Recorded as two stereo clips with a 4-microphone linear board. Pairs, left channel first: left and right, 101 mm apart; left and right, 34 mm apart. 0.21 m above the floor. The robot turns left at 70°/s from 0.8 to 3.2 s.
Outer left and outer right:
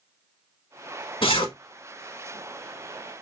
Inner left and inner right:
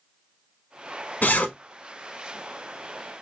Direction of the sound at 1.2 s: 60° left (ahead or behind).